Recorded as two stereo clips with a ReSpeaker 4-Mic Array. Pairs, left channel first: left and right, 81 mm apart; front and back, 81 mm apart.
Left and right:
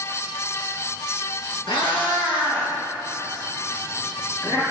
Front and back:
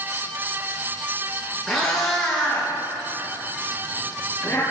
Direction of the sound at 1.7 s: 90° left.